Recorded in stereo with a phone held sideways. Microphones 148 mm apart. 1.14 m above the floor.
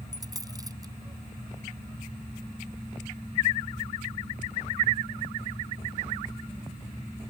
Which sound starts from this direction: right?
A dropped coin, at 0.1 s.